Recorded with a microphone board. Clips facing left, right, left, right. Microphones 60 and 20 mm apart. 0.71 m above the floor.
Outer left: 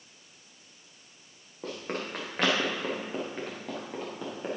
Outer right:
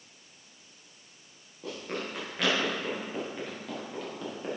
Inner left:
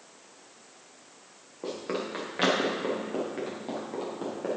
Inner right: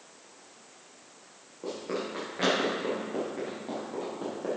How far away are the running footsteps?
About 3.5 m.